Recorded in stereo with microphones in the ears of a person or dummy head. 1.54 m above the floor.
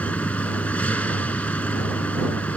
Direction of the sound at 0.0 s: 10° left (ahead or behind).